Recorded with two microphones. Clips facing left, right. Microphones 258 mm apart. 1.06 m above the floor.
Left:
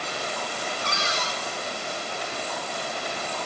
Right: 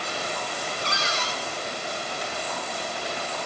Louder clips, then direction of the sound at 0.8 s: Even; 50° left (ahead or behind).